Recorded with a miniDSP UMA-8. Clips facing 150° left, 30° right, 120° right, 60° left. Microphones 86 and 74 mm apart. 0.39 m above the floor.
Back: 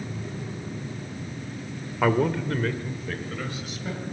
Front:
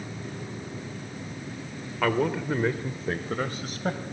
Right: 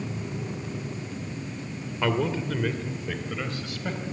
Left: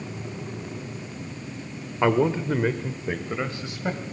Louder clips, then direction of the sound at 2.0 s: Back 2 dB, left 5 dB; 90° left.